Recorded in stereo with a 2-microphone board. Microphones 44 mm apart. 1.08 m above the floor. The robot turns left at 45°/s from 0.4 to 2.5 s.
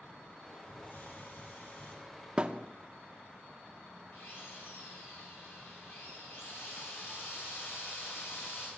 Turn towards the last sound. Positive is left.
turn(degrees=60)  # may be behind; listen again after turning